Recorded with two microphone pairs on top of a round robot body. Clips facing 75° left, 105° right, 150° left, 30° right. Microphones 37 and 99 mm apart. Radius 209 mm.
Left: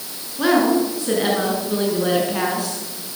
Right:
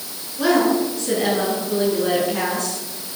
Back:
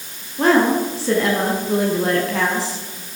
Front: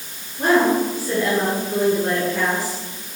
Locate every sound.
0.4 s a woman speaking: 150° left, 9.5 m; by 3.2 s 155° left, 8 m